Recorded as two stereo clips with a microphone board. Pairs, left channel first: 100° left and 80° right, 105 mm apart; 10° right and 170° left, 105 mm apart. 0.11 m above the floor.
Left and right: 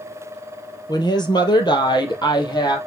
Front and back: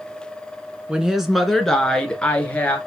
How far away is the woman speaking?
About 1.5 m.